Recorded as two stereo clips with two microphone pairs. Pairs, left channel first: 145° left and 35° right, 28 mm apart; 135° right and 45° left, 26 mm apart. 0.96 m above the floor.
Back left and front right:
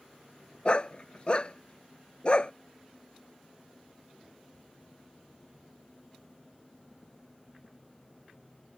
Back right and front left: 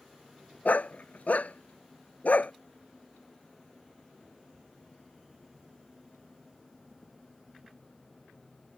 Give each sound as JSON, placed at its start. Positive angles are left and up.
{"t": 0.7, "sound": "a dog barking", "azimuth_deg": -160}